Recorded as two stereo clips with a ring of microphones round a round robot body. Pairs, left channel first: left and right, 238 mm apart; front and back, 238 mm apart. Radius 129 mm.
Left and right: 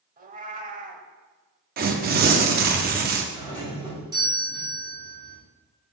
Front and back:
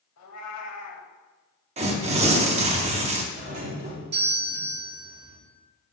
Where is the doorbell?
155° right, 2 m.